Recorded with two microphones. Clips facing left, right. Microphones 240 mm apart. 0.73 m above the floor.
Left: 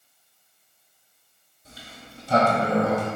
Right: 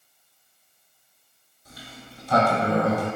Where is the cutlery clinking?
No cutlery clinking in this recording.